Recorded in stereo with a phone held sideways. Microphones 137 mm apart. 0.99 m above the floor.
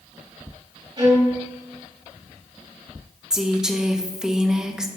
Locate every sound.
1.0 s a violin: 35° right (ahead or behind), 4 m
3.3 s a woman speaking: 5° right (ahead or behind), 0.9 m